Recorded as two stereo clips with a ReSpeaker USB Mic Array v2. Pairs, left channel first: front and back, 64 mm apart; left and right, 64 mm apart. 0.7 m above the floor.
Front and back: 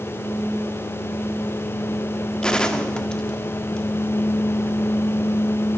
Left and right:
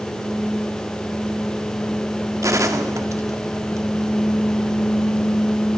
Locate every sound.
2.4 s a gunshot: 75° right, 1.7 m